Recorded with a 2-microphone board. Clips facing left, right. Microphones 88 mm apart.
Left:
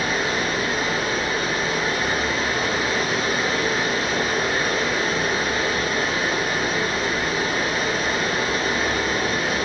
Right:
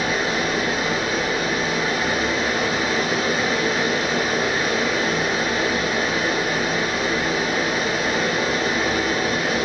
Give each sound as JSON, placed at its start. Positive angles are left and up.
{"t": 0.0, "sound": "running water", "side_deg": -10, "distance_m": 2.0}